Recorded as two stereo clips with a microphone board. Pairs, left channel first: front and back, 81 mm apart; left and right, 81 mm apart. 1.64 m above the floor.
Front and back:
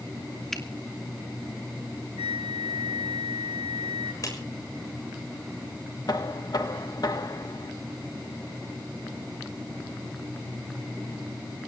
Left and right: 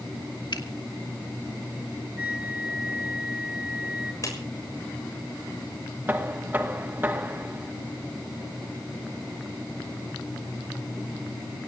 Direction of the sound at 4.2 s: 45° left.